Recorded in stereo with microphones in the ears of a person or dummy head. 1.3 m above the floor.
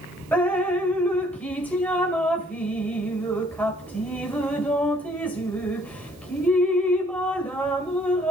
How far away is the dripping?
About 1.8 m.